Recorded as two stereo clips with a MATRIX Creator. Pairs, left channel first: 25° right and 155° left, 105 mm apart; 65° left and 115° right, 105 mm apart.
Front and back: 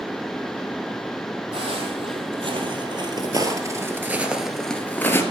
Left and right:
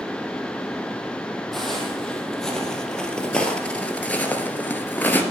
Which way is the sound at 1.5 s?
155° left.